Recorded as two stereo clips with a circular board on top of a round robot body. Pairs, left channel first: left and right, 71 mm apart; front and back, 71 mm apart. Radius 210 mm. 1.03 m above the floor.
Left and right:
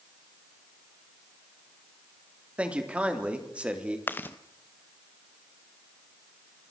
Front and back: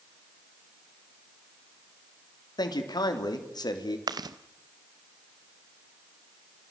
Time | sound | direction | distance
2.6 | a man speaking | 15° right | 3.5 m
4.1 | chewing | 150° left | 0.8 m